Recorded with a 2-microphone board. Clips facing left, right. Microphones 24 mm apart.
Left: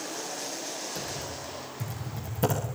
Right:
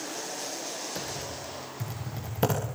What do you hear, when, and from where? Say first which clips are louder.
0.9 s typing on a keyboard: even; 40° right (ahead or behind), 10 m